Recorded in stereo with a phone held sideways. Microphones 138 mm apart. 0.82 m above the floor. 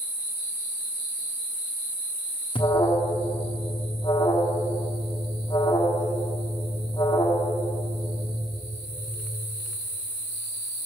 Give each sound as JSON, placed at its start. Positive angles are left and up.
{"t": 2.5, "sound": "an alarm", "side_deg": 35, "distance_m": 1.3}